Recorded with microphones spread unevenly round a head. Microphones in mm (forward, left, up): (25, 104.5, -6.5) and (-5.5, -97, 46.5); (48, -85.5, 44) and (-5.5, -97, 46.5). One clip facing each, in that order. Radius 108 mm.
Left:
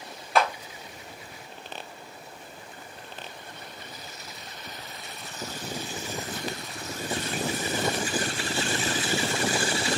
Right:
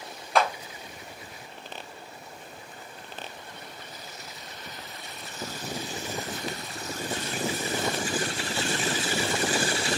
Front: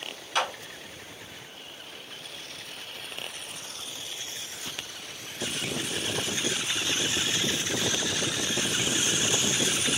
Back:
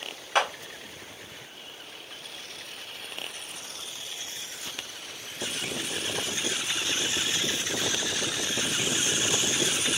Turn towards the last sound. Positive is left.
turn(degrees=-165)